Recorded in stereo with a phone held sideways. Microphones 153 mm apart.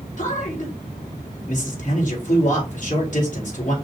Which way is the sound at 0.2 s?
55° left (ahead or behind).